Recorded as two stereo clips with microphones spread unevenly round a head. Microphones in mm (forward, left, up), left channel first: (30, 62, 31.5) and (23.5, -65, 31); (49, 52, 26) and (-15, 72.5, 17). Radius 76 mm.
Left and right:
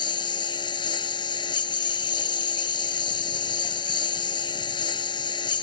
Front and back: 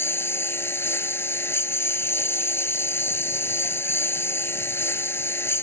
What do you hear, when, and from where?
0.0 s a lawn mower: 35° left